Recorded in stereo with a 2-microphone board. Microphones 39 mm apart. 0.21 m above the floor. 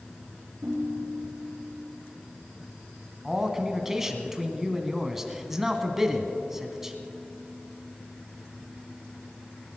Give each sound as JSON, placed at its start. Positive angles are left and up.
{"t": 0.6, "sound": "a ringtone", "side_deg": -55, "distance_m": 3.0}
{"t": 3.2, "sound": "a man speaking", "side_deg": -10, "distance_m": 1.4}